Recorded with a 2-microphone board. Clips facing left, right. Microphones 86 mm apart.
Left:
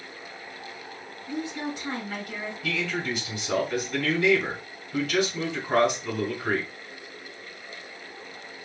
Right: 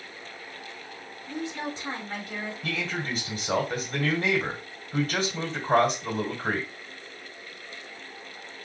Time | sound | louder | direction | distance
1.3 | a woman speaking | left 2 dB | 25° right (ahead or behind) | 3 m
2.6 | a man speaking | left 4 dB | 45° right (ahead or behind) | 2.5 m